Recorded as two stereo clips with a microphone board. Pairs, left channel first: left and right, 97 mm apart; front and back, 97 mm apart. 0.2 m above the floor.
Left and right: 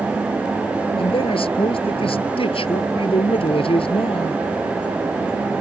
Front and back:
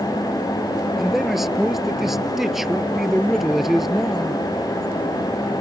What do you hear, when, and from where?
1.0 s a man speaking: 95° left